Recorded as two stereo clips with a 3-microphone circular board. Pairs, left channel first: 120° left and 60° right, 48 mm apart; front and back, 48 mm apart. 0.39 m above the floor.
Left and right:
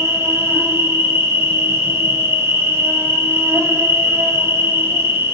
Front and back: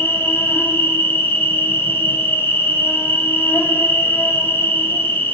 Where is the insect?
40° right, 0.8 m.